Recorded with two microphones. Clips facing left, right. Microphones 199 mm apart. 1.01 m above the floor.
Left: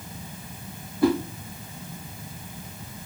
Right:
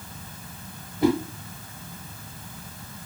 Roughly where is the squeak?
No squeak in this recording.